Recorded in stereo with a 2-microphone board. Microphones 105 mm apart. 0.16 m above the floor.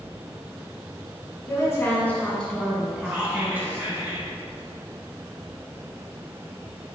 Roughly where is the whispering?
Right.